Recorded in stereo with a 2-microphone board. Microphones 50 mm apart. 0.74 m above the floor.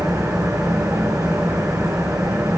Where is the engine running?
75° right (ahead or behind), 6.5 m.